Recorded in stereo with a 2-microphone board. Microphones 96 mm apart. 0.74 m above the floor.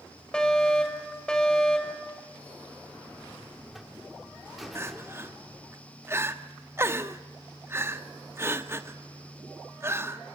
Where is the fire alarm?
10° left (ahead or behind), 5.5 m.